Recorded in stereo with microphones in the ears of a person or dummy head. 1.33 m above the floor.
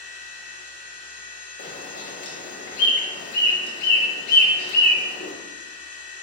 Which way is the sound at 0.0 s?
20° left (ahead or behind).